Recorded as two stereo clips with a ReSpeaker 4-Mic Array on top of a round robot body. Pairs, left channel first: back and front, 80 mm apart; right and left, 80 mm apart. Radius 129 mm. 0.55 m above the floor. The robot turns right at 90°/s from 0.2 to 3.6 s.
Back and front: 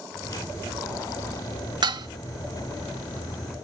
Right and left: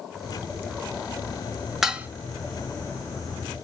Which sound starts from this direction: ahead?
Dishes clattering, at 1.8 s.